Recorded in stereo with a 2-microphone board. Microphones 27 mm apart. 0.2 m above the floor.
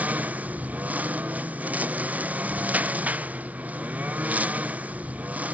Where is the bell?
No bell in this recording.